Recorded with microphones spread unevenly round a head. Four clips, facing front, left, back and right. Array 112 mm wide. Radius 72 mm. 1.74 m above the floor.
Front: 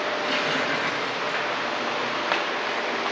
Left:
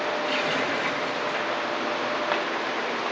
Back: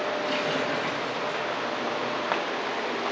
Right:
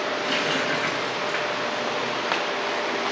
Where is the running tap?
25° right, 7 m.